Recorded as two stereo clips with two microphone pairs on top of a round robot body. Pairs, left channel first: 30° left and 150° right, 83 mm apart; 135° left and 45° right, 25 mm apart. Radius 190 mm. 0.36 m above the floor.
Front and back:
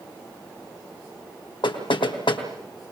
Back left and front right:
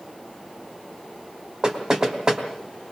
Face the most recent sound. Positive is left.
turn(degrees=15)